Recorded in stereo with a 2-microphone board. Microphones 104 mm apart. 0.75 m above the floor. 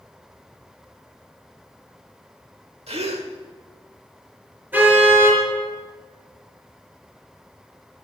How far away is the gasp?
About 1.3 m.